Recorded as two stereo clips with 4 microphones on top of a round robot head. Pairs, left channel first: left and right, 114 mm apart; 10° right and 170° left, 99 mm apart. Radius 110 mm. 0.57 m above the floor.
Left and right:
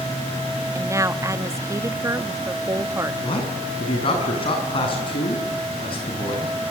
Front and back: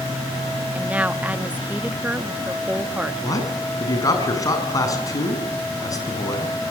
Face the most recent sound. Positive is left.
turn(degrees=45)